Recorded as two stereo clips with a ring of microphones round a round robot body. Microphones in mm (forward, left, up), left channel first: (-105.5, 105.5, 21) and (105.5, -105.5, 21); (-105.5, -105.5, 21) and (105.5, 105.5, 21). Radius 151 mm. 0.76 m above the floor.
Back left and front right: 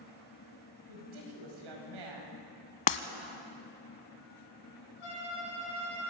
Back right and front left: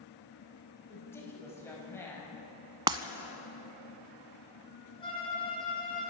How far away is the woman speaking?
About 5.5 m.